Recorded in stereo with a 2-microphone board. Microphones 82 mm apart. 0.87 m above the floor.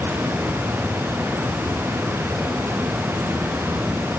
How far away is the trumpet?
No trumpet in this recording.